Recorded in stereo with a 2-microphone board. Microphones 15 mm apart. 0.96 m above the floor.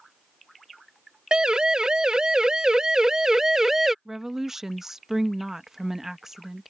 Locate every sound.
1.3 s a siren: 60° right (ahead or behind); by 4.0 s 20° right (ahead or behind)
4.0 s a woman speaking: 25° right (ahead or behind)